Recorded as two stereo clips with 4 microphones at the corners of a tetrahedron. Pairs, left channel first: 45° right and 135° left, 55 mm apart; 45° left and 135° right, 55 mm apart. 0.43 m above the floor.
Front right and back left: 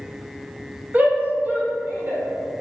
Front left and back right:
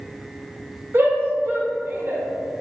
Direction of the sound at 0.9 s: 170° right.